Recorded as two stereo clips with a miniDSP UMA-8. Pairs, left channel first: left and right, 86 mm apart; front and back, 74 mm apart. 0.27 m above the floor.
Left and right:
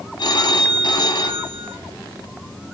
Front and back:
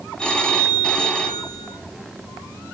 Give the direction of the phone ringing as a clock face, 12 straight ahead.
9 o'clock.